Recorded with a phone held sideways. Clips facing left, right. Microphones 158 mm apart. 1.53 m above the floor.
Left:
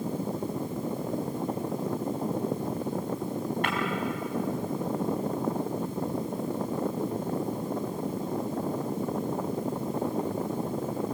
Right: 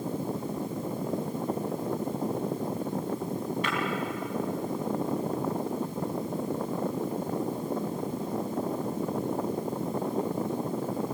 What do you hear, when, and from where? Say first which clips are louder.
3.6 s breaking glass: left 1 dB; 60° left (ahead or behind), 5.5 m